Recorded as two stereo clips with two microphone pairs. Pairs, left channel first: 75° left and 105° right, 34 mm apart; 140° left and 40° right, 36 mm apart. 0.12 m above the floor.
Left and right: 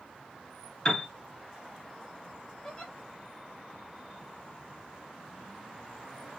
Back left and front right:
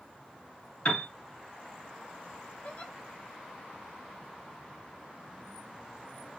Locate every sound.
0.8 s a piano: 140° left, 2 m
2.6 s a giggle: 140° left, 2.0 m